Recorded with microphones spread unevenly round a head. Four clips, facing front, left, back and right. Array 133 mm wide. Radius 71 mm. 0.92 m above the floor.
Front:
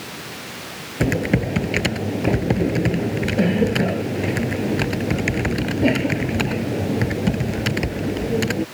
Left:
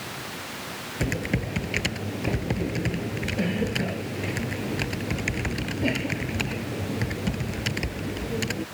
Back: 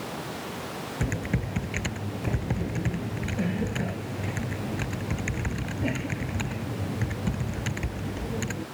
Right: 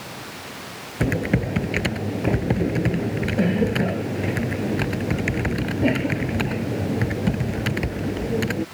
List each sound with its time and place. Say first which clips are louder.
1.0 s typing on a keyboard: right 6 dB, front 13 dB; 25° right